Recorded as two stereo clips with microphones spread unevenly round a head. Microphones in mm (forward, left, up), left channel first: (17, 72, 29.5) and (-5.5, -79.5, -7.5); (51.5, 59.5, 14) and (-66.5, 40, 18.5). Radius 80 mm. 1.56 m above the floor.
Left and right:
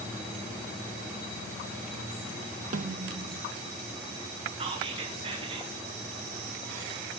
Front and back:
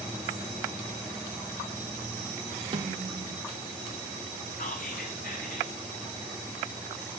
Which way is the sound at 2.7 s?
140° right.